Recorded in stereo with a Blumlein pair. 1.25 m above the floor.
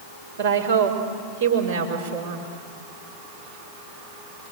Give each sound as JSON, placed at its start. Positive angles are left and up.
{"t": 0.4, "sound": "a woman speaking", "azimuth_deg": -70, "distance_m": 4.5}